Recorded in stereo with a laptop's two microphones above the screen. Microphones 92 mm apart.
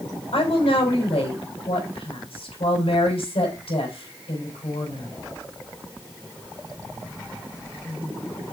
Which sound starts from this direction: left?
A woman speaking, at 0.3 s.